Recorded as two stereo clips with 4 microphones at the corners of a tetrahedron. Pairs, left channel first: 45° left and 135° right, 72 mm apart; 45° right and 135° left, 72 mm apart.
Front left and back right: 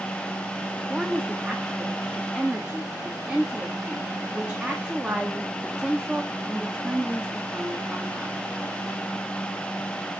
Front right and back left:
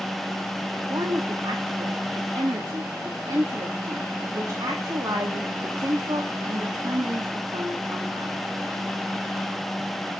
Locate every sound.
0.9 s a woman speaking: 150° left, 1.5 m